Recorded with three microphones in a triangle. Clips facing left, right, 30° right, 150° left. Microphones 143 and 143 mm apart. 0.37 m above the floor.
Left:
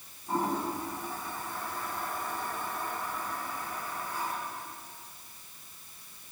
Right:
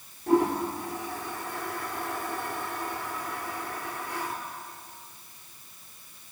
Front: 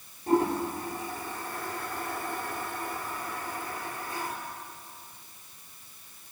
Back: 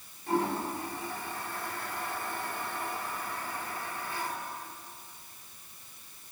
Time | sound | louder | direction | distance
0.3 | a toilet flushing | right 7 dB, front 5 dB | 80° right | 4.5 m